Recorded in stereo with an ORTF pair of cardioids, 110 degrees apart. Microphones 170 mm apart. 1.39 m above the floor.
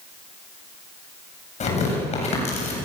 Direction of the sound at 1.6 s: 40° left.